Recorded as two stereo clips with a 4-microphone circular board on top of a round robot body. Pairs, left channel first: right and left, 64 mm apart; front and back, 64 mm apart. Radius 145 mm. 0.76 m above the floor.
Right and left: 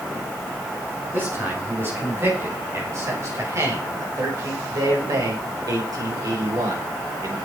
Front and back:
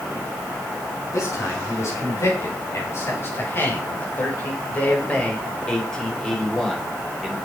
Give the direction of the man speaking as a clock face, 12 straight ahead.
11 o'clock.